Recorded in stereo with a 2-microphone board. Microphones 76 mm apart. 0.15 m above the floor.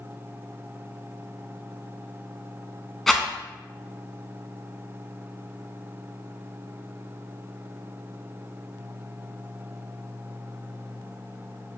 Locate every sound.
3.1 s a rattle: 5° left (ahead or behind), 0.7 m